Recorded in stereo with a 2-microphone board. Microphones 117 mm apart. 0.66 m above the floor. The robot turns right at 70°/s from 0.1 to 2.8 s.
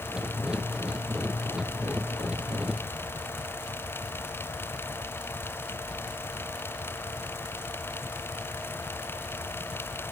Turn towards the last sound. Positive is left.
No sound to turn to.